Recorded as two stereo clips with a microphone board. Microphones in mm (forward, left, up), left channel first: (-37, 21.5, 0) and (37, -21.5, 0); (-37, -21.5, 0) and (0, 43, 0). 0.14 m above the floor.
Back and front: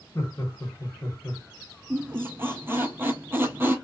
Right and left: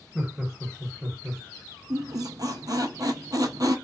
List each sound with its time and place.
0.1 s laughter: 120° left, 1.4 m
1.9 s a squeak: 35° left, 0.6 m